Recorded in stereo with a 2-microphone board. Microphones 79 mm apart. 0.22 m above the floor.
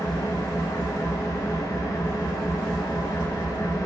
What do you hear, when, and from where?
0.0 s an engine running: 40° left (ahead or behind), 0.9 m